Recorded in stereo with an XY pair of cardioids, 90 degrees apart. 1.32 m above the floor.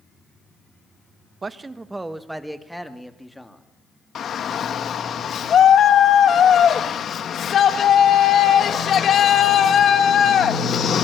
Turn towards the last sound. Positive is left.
turn(degrees=60)